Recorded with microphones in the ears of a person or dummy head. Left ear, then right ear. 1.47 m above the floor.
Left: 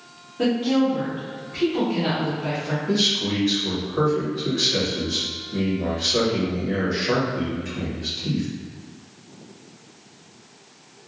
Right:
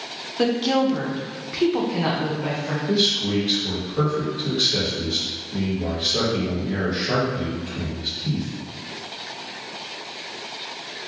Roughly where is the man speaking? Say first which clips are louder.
Right 1 dB; left.